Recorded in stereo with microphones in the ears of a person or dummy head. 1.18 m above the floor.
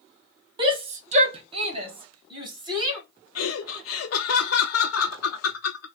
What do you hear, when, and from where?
0.6 s a shout: 35° right (ahead or behind), 0.6 m; by 3.0 s 25° right (ahead or behind), 1.6 m
3.4 s laughter: 75° left (ahead or behind), 0.5 m